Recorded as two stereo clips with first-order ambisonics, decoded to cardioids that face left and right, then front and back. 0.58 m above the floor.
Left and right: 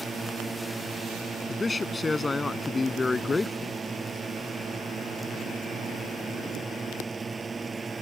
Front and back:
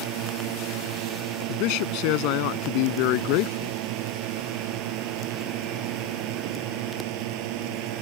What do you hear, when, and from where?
0.0 s a drone: 165° right
1.5 s a man speaking: 10° left